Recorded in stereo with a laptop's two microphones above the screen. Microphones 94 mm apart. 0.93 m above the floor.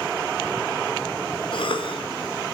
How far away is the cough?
About 1.0 m.